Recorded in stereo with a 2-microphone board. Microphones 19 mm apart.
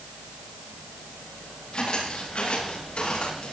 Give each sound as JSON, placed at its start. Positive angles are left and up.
{"t": 1.7, "sound": "footsteps", "side_deg": 55, "distance_m": 10.0}